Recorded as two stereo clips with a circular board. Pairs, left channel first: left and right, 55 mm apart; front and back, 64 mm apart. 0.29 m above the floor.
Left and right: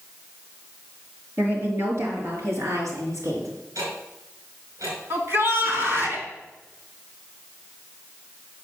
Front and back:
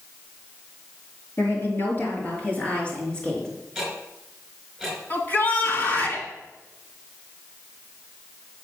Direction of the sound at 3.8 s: 90° right.